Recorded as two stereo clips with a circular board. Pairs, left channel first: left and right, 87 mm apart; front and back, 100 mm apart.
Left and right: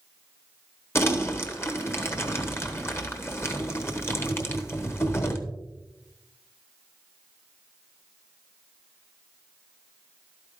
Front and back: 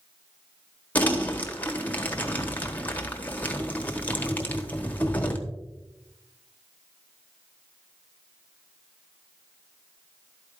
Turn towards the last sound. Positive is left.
turn(degrees=60)